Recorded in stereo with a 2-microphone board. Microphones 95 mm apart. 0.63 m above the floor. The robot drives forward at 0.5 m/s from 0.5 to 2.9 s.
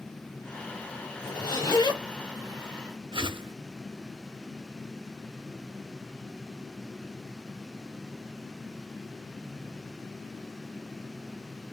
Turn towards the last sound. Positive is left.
turn(degrees=-65)  # may be behind; listen again after turning